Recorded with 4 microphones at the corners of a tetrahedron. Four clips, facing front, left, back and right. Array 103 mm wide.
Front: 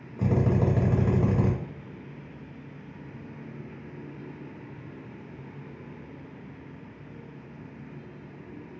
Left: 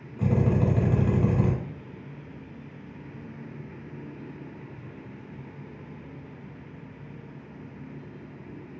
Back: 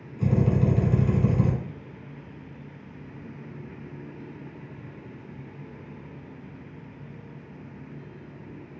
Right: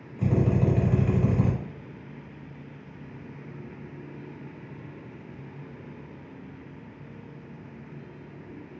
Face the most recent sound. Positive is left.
turn(degrees=20)